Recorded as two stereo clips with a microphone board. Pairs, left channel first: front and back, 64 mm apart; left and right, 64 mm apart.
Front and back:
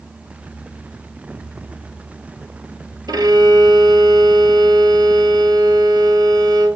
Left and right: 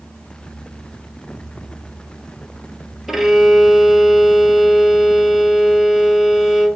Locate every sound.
3.1 s a violin: 175° right, 1.2 m